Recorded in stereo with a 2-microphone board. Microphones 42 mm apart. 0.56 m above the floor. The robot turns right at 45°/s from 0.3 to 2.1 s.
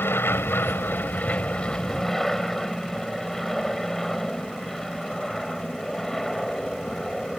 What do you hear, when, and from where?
0.0 s an aircraft: 90° left; by 7.4 s 170° left